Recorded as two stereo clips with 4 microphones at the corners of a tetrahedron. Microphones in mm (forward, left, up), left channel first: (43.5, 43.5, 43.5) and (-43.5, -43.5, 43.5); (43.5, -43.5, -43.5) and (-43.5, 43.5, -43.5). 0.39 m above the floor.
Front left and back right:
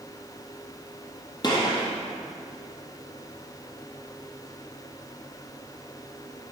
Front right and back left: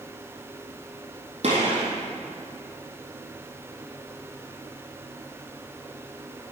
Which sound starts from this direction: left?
A gunshot, at 1.4 s.